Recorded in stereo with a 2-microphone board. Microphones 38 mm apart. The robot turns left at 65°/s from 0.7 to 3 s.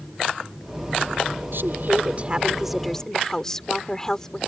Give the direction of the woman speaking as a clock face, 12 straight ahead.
3 o'clock.